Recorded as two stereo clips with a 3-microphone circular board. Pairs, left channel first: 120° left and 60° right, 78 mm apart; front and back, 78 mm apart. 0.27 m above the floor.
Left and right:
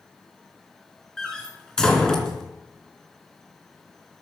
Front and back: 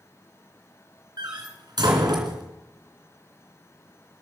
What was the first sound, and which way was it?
A door slam, 155° right.